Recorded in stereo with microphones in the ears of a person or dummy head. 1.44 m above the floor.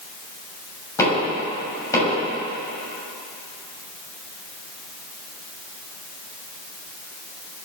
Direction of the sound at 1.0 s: 15° left (ahead or behind).